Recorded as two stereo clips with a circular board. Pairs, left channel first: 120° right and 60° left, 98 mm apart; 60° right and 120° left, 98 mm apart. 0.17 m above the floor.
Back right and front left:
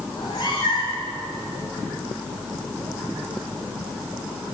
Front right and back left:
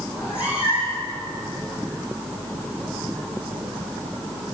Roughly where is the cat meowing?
Behind.